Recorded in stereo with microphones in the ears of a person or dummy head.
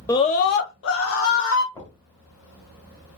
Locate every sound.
0.1 s a scream: 15° left (ahead or behind), 0.6 m; by 1.6 s 85° left, 1.7 m
1.7 s knocking: 15° left (ahead or behind), 1.3 m